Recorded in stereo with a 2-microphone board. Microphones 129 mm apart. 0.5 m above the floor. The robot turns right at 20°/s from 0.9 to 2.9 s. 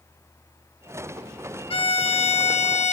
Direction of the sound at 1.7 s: 45° left (ahead or behind).